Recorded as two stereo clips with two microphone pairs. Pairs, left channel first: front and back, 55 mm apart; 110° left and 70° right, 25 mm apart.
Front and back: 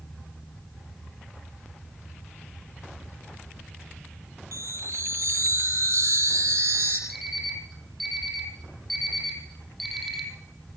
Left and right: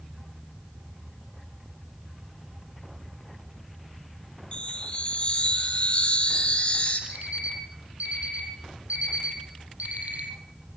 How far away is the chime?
About 5.5 m.